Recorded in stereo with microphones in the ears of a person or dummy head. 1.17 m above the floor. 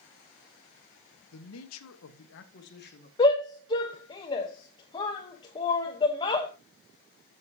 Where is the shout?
25° left (ahead or behind), 0.9 m.